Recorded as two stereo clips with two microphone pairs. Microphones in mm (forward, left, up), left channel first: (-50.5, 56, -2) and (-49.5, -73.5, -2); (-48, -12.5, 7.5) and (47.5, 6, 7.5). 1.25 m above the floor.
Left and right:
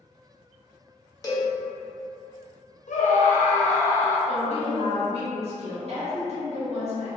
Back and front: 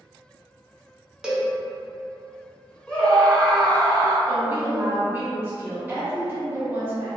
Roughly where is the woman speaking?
Ahead right.